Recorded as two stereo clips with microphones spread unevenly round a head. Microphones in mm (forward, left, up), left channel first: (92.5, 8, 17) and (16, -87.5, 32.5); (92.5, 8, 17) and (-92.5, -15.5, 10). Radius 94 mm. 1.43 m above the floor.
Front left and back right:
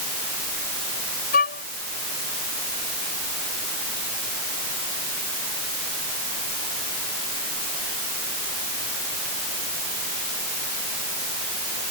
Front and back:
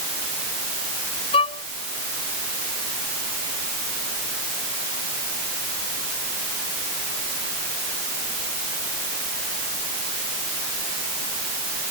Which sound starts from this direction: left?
A violin, at 1.3 s.